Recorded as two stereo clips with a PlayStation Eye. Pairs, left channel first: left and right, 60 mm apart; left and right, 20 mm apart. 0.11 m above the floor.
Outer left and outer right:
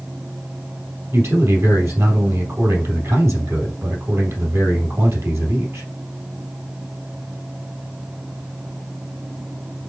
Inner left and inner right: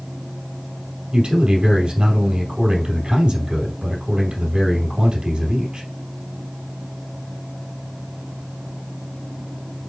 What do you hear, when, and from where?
1.1 s a man speaking: 60° right (ahead or behind), 3 m